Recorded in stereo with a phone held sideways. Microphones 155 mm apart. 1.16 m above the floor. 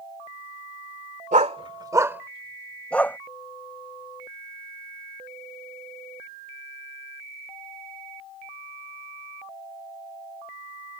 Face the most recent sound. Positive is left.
turn(degrees=15)  # may be behind; listen again after turning